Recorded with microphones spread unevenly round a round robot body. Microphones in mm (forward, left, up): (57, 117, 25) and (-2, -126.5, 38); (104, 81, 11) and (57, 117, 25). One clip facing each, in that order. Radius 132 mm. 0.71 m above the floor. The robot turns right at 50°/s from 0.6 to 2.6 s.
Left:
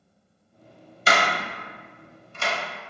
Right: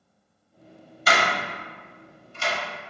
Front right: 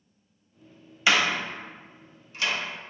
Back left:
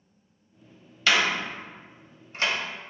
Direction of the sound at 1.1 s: 25° left.